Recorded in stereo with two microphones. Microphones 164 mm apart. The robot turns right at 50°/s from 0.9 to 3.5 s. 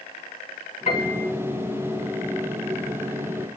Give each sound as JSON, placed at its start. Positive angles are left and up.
{"t": 0.9, "sound": "a piano", "side_deg": 45, "distance_m": 2.5}